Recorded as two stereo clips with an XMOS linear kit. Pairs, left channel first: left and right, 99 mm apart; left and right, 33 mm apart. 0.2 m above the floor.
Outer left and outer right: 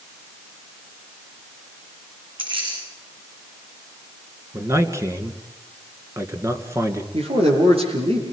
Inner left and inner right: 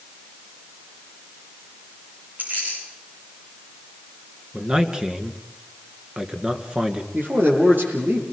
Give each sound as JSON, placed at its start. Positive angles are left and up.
{"t": 2.4, "sound": "keys jangling", "side_deg": -60, "distance_m": 10.0}
{"t": 4.5, "sound": "a man speaking", "side_deg": -30, "distance_m": 2.5}
{"t": 7.1, "sound": "a man speaking", "side_deg": -75, "distance_m": 6.5}